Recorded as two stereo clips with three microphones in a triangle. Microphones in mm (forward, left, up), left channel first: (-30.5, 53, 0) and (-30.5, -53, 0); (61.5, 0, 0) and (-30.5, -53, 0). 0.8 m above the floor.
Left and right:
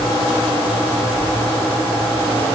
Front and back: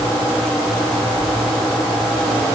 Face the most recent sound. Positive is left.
No sound to turn to.